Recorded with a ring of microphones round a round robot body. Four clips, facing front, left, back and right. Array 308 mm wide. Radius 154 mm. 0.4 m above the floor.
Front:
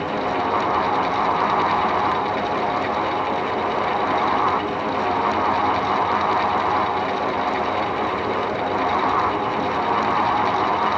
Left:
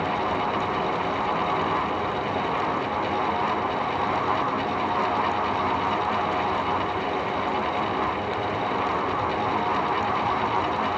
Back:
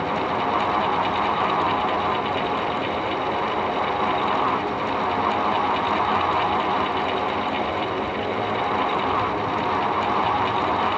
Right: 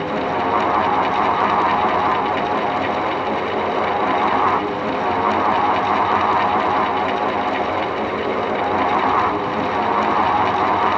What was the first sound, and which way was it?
Only background noise.